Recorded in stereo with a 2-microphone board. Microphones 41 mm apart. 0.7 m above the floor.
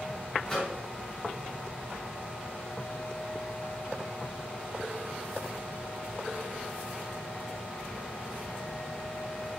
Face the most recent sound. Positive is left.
turn(degrees=10)  # may be behind; listen again after turning